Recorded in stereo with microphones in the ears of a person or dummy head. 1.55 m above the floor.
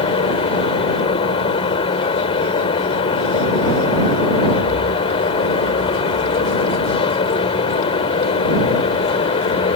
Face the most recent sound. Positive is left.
turn(degrees=35)  # may be behind; listen again after turning